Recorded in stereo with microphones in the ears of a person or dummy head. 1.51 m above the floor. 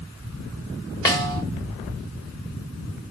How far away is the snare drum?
About 1.6 m.